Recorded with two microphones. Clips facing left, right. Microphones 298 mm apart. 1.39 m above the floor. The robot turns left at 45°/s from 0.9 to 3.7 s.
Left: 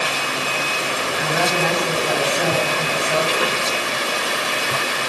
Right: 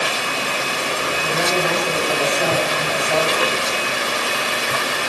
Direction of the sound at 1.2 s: 105° left.